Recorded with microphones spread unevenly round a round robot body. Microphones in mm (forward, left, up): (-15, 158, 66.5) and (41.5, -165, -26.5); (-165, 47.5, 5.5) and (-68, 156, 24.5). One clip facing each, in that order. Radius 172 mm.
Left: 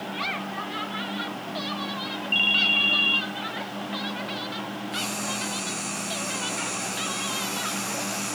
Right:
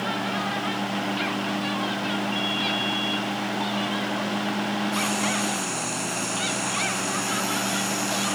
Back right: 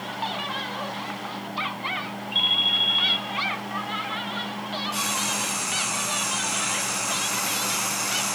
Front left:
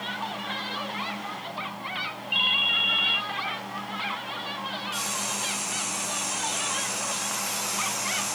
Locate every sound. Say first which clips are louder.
2.3 s a ringtone: right 5 dB, back right 1 dB; 85° left, 1.3 m
4.9 s frying: right 6 dB, back right 4 dB; 155° right, 5 m